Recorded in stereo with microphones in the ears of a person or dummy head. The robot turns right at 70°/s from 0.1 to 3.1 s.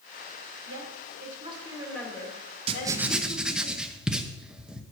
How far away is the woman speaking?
About 3 m.